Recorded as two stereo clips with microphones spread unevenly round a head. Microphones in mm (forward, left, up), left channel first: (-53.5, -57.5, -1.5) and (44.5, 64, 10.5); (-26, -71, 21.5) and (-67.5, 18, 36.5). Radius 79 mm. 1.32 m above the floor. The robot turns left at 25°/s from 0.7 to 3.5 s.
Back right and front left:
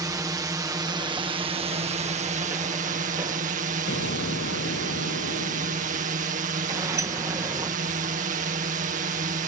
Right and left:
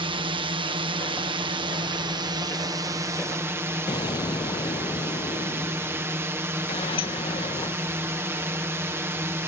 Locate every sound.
0.0 s a drone: 115° left; by 9.5 s 45° left
3.9 s an explosion: 110° right
6.7 s a sliding door: 20° right